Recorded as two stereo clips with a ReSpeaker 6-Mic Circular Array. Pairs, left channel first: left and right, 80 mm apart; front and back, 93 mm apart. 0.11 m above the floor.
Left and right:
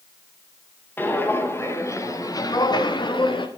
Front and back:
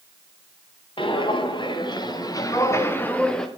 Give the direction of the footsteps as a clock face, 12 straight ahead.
11 o'clock.